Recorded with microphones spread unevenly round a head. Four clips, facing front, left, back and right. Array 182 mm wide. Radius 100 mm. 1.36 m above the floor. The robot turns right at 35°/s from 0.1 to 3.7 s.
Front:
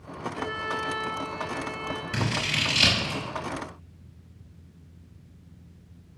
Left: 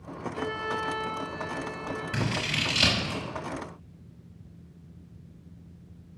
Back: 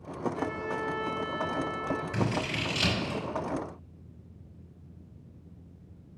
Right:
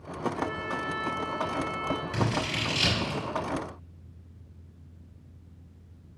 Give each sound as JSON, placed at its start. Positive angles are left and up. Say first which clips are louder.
{"t": 0.3, "sound": "a violin", "louder": "left 1 dB, front 1 dB", "azimuth_deg": 75, "distance_m": 1.7}
{"t": 2.1, "sound": "scissors", "louder": "right 2 dB, even", "azimuth_deg": 50, "distance_m": 5.0}